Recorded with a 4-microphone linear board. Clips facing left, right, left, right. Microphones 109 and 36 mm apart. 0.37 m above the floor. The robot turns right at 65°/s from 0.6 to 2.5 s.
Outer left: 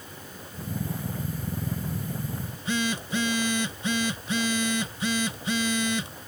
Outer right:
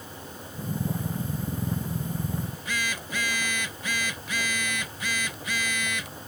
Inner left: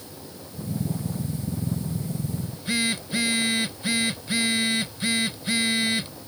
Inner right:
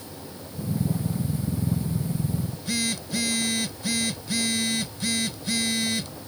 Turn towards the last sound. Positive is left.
turn(degrees=30)  # may be behind; listen again after turning